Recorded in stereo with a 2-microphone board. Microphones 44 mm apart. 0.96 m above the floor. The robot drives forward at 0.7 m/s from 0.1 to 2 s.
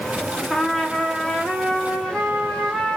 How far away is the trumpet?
About 0.9 m.